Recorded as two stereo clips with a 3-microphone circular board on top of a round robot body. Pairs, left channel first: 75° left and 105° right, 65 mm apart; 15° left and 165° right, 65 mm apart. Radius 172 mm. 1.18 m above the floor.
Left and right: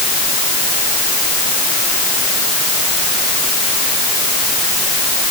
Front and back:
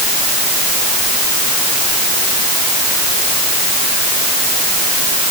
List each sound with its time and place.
Only background noise.